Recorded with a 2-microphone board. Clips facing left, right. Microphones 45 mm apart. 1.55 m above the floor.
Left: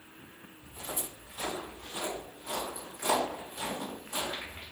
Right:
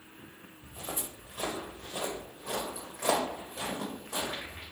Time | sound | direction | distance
0.6 | footsteps | 35° right (ahead or behind) | 2.0 m